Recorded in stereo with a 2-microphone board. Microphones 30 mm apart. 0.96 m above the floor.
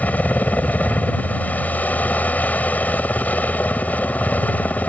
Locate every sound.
0.0 s a helicopter: 55° left (ahead or behind)